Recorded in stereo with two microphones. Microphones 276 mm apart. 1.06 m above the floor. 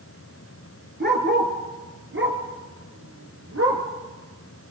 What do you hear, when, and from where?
1.0 s a dog barking: 35° right (ahead or behind), 4 m; by 3.8 s 50° right (ahead or behind), 5 m